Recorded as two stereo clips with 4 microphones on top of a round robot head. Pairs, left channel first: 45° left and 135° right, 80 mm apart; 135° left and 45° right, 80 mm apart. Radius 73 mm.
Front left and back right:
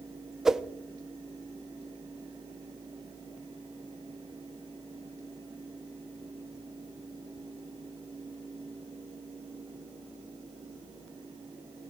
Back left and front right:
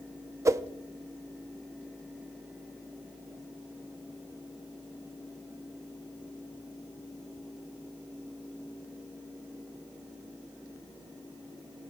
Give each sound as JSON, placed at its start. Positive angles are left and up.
{"t": 0.5, "sound": "a whoosh", "azimuth_deg": -55, "distance_m": 0.6}